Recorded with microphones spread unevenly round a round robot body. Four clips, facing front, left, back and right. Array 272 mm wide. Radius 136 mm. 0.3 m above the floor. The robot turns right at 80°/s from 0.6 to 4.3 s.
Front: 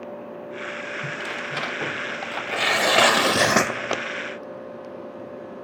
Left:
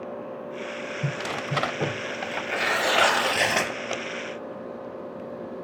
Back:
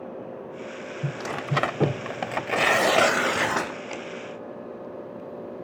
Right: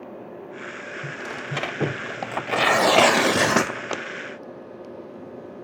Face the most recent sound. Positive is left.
turn(degrees=20)